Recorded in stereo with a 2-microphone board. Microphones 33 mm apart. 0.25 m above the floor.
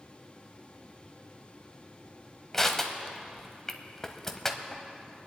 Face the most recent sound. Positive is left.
turn(degrees=15)  # may be behind; listen again after turning